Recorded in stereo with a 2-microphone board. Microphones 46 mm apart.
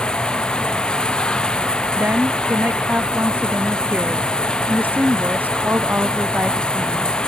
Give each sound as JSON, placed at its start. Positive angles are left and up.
{"t": 0.0, "sound": "running water", "side_deg": 20}
{"t": 2.0, "sound": "a woman speaking", "side_deg": -45}